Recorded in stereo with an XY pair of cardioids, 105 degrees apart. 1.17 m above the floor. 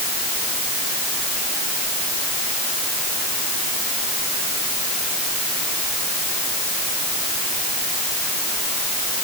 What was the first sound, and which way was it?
Only background noise.